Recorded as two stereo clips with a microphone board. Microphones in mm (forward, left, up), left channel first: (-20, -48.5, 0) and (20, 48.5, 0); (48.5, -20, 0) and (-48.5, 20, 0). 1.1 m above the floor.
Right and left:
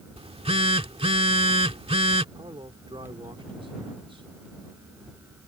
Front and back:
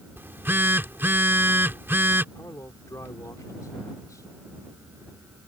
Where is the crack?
I don't hear a crack.